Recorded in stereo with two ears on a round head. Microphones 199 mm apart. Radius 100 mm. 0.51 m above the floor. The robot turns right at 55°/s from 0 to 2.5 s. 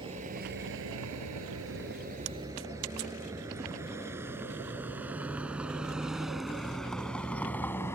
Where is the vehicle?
25° right (ahead or behind); by 8.0 s 10° left (ahead or behind).